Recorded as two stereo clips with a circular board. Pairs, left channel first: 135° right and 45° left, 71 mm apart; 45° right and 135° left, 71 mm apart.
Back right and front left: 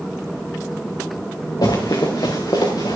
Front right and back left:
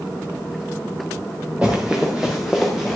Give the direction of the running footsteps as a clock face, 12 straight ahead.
5 o'clock.